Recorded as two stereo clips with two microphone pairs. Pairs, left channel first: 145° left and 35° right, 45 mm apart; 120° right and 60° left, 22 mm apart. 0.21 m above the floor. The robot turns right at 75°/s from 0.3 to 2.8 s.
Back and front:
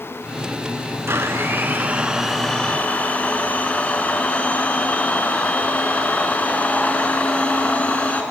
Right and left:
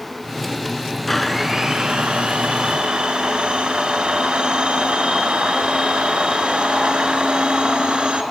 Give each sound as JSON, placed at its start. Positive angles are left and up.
{"t": 1.1, "sound": "a blender", "azimuth_deg": -40, "distance_m": 0.9}